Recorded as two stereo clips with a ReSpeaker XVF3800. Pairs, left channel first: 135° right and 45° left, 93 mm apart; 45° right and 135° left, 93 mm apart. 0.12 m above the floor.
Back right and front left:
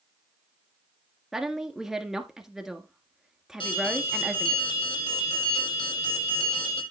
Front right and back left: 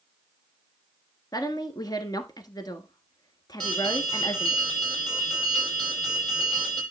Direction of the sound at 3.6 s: 130° right.